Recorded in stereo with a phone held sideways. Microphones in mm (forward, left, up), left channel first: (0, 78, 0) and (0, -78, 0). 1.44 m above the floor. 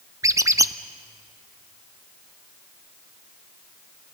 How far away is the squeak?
About 0.6 m.